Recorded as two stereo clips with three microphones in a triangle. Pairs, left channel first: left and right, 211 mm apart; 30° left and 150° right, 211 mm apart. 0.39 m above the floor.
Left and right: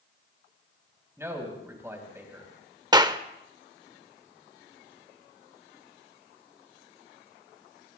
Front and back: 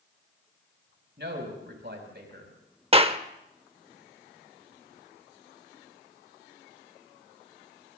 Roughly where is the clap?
Behind right.